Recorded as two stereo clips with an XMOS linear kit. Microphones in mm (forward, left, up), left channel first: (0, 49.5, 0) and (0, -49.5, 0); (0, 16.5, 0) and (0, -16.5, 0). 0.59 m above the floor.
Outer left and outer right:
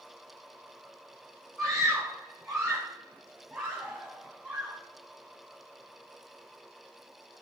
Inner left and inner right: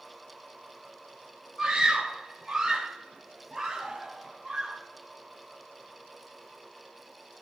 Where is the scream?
10° right (ahead or behind), 6 m; by 4.8 s 5° right (ahead or behind), 4 m.